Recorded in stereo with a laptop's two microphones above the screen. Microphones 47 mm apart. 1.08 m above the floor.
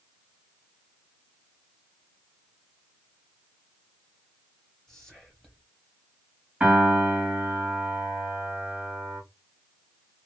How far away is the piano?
About 1.1 m.